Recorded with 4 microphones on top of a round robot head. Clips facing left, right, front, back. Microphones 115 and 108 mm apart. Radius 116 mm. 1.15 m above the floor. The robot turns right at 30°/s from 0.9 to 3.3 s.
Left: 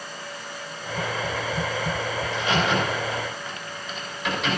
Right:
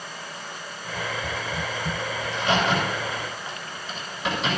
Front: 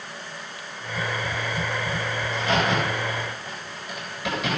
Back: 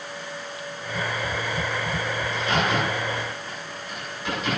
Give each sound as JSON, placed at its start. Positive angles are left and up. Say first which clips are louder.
{"t": 2.2, "sound": "a crack", "louder": "right 2 dB, front 2 dB", "azimuth_deg": -65, "distance_m": 8.5}